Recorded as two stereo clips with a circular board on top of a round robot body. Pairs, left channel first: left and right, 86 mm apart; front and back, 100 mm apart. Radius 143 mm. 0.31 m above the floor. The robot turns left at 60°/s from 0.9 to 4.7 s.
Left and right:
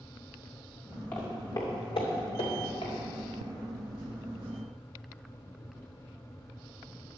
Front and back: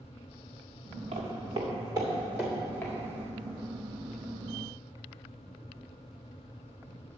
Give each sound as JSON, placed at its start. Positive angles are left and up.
{"t": 1.1, "sound": "footsteps", "azimuth_deg": 170, "distance_m": 2.0}